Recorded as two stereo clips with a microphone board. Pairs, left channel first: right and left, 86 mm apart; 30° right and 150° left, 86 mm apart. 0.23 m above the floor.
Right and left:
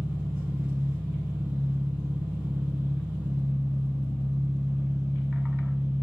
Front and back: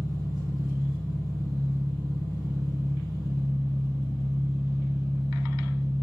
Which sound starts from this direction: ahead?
An engine running, at 0.0 s.